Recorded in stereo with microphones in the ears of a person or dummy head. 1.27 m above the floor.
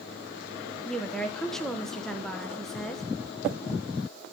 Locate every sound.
0.8 s a woman speaking: centre (ahead or behind), 0.9 m